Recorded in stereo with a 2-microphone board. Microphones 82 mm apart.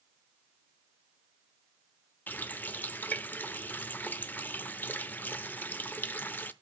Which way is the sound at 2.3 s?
20° left (ahead or behind).